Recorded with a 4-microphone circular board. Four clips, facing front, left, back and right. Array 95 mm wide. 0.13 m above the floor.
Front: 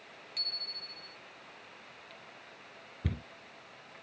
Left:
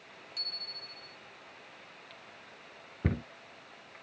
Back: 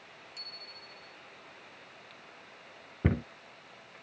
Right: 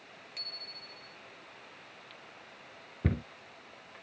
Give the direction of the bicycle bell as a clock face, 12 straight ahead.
2 o'clock.